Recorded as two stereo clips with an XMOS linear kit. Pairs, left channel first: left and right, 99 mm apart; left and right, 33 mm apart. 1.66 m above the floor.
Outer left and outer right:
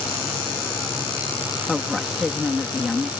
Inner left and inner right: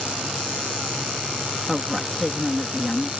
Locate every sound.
1.7 s a woman speaking: centre (ahead or behind)